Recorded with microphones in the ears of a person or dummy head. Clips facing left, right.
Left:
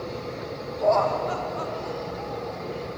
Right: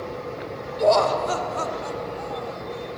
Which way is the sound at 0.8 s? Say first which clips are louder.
Right 3 dB; 50° right (ahead or behind).